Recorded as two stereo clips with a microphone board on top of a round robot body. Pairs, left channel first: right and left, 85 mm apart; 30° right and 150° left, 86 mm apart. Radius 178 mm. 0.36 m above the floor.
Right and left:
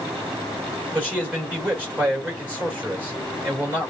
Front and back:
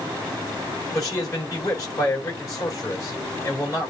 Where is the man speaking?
25° left, 4 m.